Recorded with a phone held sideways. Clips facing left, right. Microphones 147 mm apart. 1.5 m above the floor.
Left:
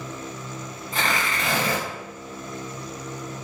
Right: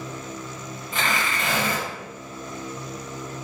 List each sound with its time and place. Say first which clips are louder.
0.9 s tearing paper: even; 40° left (ahead or behind), 1.1 m